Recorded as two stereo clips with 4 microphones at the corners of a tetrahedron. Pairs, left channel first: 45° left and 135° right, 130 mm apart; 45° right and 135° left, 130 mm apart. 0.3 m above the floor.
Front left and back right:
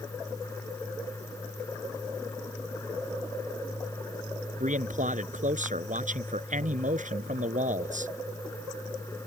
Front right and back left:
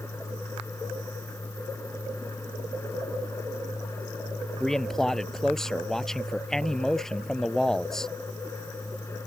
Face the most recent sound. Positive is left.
turn(degrees=-130)